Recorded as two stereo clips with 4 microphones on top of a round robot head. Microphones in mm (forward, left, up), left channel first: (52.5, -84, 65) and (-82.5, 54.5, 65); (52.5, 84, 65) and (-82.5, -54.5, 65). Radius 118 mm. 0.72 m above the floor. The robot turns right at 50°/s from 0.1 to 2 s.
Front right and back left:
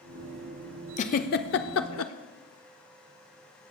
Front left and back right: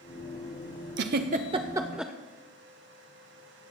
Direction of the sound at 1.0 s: 100° right.